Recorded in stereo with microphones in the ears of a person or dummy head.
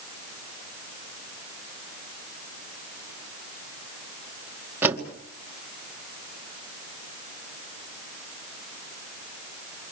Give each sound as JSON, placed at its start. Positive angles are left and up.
{"t": 4.8, "sound": "a door slam", "side_deg": -15, "distance_m": 2.0}